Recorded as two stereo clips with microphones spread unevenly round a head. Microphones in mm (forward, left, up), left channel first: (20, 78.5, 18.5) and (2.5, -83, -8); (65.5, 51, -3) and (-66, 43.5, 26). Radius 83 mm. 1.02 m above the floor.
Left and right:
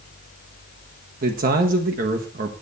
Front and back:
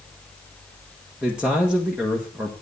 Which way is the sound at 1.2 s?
85° right.